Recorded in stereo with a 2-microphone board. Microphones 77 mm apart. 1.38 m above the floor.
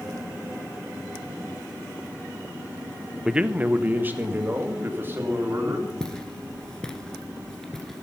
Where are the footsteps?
10° left (ahead or behind), 1.5 m; by 8.0 s 5° left (ahead or behind), 1.4 m.